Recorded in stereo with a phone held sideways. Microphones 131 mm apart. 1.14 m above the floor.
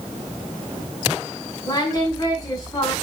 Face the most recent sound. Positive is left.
turn(degrees=25)  # may be behind; listen again after turning